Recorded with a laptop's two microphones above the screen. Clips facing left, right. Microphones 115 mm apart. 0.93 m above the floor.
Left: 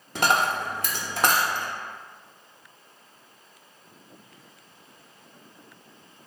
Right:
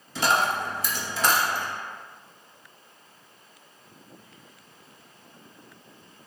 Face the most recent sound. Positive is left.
turn(degrees=60)  # may be behind; listen again after turning